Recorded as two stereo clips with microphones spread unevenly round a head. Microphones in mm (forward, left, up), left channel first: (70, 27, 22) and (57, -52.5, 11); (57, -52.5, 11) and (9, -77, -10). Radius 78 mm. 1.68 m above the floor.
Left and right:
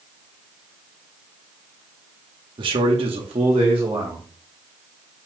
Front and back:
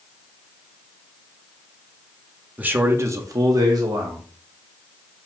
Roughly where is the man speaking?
Right.